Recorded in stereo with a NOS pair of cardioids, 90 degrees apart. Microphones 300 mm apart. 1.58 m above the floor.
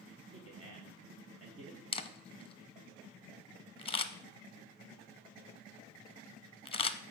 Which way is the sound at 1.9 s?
20° left.